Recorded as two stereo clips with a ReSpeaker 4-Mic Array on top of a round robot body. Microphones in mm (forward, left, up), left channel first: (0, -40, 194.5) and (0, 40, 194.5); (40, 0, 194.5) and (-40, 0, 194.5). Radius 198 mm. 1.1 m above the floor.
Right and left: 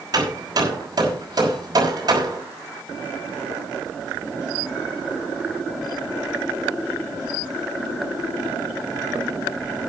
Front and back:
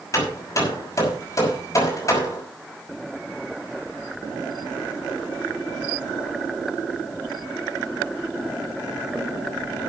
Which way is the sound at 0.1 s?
50° left.